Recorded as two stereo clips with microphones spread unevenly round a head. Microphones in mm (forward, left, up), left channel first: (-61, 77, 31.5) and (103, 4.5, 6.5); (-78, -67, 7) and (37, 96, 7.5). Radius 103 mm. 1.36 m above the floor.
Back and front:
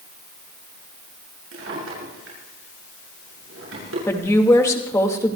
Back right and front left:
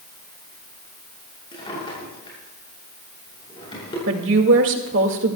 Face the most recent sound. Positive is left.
turn(degrees=80)